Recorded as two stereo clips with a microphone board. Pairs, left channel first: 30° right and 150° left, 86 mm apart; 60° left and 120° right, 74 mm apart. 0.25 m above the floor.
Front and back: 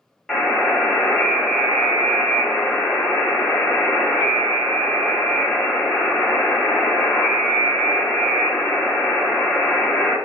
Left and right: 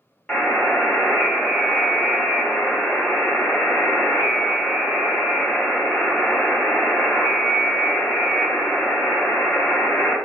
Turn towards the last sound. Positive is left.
turn(degrees=50)